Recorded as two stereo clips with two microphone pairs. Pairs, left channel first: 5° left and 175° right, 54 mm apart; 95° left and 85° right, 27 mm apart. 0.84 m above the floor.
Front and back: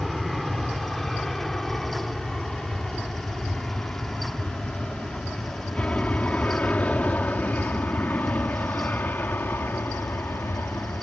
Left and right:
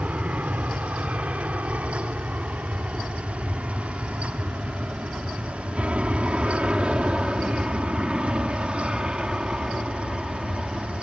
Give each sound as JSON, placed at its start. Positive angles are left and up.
{"t": 0.0, "sound": "an aircraft", "azimuth_deg": -80}